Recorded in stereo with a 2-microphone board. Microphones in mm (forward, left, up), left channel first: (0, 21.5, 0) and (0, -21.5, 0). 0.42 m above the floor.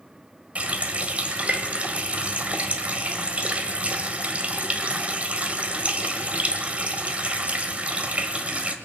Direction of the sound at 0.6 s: 30° right (ahead or behind).